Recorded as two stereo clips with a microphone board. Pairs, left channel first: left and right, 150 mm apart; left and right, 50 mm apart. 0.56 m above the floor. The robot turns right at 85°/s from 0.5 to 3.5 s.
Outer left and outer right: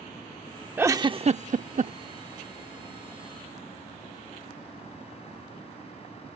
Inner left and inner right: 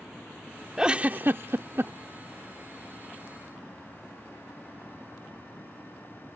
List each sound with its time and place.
0.8 s a giggle: 10° right (ahead or behind); by 1.9 s 50° right (ahead or behind)